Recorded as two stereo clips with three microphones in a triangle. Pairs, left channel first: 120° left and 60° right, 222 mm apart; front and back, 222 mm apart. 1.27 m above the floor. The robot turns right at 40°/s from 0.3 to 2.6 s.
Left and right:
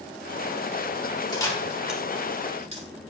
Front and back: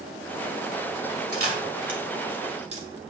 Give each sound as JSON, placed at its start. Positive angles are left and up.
{"t": 1.3, "sound": "a camera shutter", "azimuth_deg": -170, "distance_m": 2.0}